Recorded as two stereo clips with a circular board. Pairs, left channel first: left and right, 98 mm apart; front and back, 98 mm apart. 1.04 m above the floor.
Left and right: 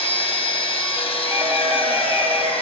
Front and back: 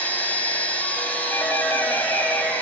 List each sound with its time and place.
0.0 s an engine running: 75° left, 3.5 m
1.3 s a doorbell: 60° right, 1.5 m